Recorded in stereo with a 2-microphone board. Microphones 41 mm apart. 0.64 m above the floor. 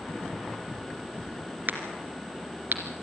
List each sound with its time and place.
1.7 s a crack: 45° right (ahead or behind), 2.5 m